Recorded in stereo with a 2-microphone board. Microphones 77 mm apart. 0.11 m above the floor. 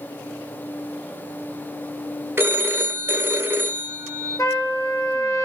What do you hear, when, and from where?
2.4 s a phone ringing: 30° right (ahead or behind), 0.7 m
4.4 s a trumpet: 45° left (ahead or behind), 1.4 m